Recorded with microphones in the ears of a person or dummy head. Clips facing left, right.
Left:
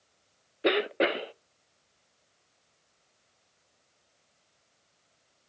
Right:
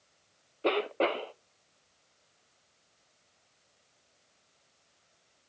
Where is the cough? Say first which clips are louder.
Left 2 dB; 20° left (ahead or behind), 0.5 m.